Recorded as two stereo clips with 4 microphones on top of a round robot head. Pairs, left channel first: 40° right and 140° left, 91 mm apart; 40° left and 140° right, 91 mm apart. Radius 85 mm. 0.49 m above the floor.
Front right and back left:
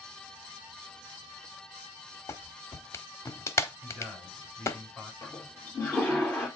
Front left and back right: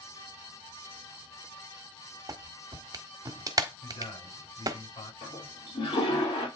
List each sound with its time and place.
2.3 s a clap: 95° right, 1.3 m
3.8 s a man speaking: 45° left, 6 m
5.2 s a toilet flushing: 30° left, 4 m